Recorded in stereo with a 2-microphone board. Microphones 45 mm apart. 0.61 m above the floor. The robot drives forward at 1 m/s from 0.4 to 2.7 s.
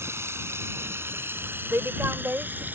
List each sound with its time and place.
0.0 s running water: 75° right (ahead or behind); by 2.8 s 45° right (ahead or behind)
1.7 s a woman speaking: 65° right (ahead or behind); by 2.6 s 45° right (ahead or behind)